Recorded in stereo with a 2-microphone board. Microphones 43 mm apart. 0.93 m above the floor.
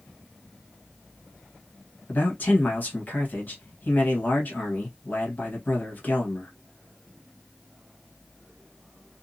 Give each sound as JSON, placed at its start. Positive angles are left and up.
{"t": 2.1, "sound": "a man speaking", "side_deg": 45, "distance_m": 1.2}